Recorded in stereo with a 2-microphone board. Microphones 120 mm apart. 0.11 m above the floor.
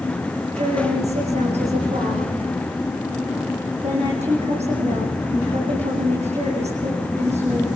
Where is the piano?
I don't hear a piano.